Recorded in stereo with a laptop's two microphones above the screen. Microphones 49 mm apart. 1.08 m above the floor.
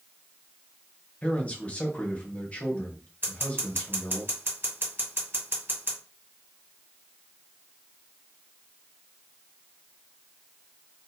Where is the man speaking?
25° left (ahead or behind), 0.8 m.